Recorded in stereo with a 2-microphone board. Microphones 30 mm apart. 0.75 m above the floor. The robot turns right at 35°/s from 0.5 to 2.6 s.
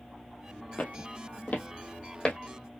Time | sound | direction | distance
0.8 | footsteps | 50° left (ahead or behind) | 1.3 m